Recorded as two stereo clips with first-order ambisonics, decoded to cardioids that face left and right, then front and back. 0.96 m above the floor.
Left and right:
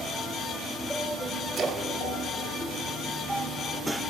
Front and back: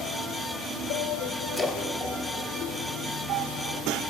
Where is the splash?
65° right, 0.7 m.